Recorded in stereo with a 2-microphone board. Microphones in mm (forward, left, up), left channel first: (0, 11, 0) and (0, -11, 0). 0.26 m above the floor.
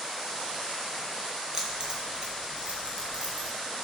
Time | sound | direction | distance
1.5 | keys jangling | 30° right (ahead or behind) | 1.9 m